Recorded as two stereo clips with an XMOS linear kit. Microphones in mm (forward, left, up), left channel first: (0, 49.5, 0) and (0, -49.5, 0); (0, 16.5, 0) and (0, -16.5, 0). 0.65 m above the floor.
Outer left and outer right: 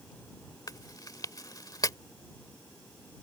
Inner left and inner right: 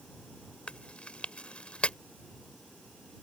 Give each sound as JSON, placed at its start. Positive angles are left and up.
{"t": 0.7, "sound": "chewing", "side_deg": 40}